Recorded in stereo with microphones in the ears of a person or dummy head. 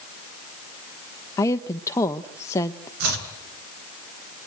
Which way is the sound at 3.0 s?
65° right (ahead or behind).